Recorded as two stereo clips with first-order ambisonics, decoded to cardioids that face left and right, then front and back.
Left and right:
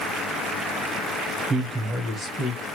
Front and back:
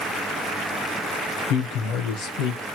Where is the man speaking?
10° right, 0.8 m; by 2.8 s 15° left, 1.3 m.